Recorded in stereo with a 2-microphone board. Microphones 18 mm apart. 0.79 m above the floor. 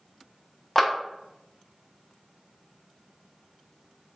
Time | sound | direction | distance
0.8 | a clap | 10° left (ahead or behind) | 0.7 m